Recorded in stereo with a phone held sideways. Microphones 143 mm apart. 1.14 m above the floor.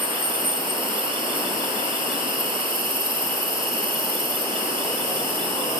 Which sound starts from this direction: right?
An insect, at 0.0 s.